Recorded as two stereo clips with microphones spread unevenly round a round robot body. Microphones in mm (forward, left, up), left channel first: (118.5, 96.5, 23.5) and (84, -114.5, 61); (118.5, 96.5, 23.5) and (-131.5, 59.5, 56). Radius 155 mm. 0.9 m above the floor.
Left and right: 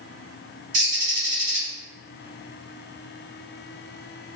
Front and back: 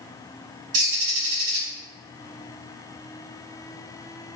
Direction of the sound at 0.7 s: 155° right.